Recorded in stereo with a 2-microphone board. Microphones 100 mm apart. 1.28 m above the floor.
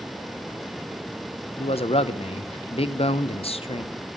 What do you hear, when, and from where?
1.6 s a man speaking: 75° left (ahead or behind), 0.9 m